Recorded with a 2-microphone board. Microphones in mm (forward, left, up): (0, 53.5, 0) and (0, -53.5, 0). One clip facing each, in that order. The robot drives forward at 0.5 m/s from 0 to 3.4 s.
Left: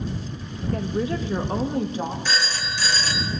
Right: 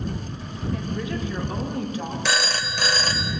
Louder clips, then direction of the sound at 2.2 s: Right 2 dB; 70° right (ahead or behind).